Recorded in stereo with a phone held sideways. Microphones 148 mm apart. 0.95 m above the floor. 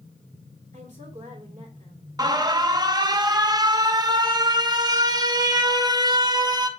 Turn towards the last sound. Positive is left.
turn(degrees=-25)  # may be behind; listen again after turning